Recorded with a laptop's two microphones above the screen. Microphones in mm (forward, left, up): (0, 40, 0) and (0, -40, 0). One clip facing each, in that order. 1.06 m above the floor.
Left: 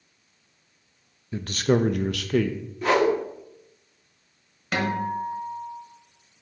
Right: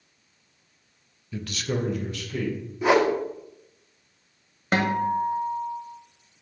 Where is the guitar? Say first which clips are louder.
Right 3 dB; 35° right (ahead or behind), 1.1 m.